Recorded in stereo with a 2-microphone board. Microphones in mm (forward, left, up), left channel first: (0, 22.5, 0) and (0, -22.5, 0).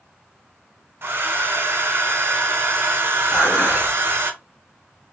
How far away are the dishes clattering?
About 1.6 m.